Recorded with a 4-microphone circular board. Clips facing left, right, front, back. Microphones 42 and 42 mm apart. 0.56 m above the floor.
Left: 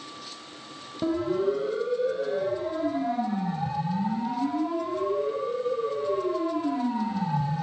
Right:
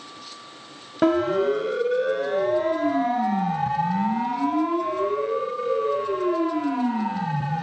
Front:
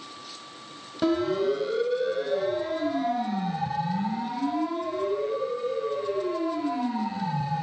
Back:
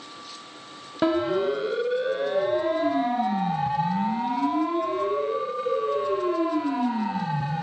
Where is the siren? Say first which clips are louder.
Right 6 dB, back 1 dB; 115° right, 3 m; by 7.6 s 130° right, 6 m.